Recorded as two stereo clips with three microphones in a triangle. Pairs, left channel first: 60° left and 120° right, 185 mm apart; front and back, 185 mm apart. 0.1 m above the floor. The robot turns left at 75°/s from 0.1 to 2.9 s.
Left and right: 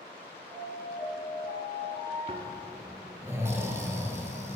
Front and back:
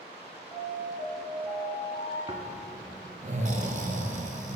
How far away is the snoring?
About 0.7 m.